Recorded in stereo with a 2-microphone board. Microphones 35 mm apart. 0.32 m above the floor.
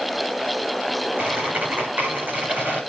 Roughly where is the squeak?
Right.